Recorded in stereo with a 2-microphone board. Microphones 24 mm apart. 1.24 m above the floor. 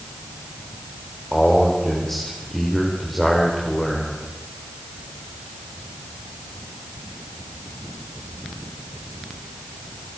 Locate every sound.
1.3 s a man speaking: 15° left (ahead or behind), 4.5 m